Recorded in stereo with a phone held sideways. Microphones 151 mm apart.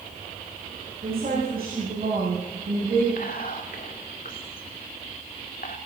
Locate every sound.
1.0 s a woman speaking: 75° right (ahead or behind), 9 m; by 3.1 s 85° right, 7.5 m
3.2 s whispering: 70° left (ahead or behind), 2 m